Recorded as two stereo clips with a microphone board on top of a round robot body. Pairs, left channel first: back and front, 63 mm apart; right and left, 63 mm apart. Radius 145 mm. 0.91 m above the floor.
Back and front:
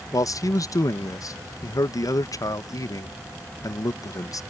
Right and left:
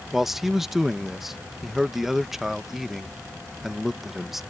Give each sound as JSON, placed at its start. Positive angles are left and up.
{"t": 0.1, "sound": "a man speaking", "azimuth_deg": 175}